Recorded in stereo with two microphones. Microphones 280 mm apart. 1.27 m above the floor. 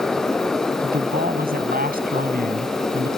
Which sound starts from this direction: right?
A man speaking, at 0.8 s.